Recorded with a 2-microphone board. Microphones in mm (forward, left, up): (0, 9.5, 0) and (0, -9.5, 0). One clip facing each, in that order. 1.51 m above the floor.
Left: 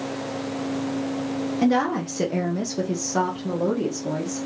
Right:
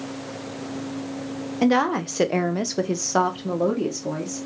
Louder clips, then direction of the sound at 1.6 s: Right 2 dB; 35° right (ahead or behind).